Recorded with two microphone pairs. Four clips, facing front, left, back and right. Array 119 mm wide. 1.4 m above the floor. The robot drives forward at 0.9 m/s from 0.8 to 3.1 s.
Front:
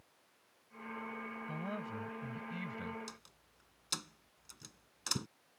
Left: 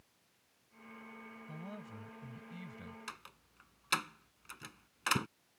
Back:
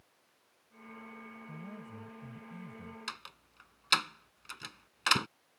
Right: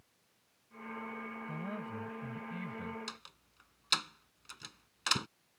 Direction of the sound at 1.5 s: 10° right.